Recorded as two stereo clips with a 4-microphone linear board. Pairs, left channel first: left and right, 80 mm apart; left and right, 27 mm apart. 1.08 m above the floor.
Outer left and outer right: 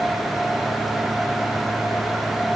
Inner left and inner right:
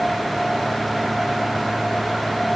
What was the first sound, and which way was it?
Only background noise.